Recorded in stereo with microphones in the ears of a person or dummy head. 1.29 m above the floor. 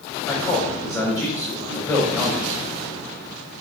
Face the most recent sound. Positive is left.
turn(degrees=20)  # may be behind; listen again after turning